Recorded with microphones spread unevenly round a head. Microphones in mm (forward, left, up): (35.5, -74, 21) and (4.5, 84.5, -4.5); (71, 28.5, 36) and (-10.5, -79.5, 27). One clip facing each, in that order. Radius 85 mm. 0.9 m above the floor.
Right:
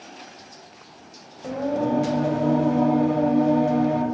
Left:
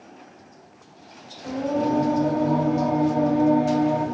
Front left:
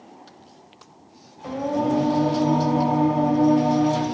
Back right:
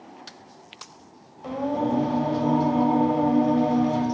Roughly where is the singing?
Ahead right.